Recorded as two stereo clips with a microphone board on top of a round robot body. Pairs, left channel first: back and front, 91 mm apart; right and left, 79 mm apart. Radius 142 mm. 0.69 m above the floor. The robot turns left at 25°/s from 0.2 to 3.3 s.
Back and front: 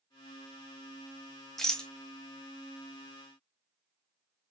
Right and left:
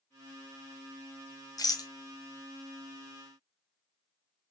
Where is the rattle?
95° right, 1.2 m; by 1.9 s 105° right, 1.2 m.